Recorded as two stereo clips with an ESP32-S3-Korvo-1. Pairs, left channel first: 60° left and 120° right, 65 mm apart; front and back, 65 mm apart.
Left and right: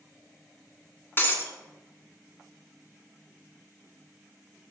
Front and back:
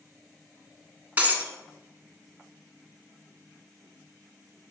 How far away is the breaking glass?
About 1.6 m.